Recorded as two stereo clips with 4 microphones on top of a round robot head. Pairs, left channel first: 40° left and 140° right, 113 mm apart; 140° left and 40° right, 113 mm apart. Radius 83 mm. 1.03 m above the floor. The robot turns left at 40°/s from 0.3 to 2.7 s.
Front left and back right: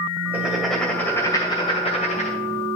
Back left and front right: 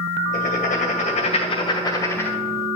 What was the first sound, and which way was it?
Writing, 145° left.